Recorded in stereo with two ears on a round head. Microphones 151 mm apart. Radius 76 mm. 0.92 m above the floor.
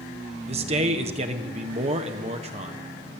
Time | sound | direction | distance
0.5 | a man speaking | 40° right (ahead or behind) | 1.1 m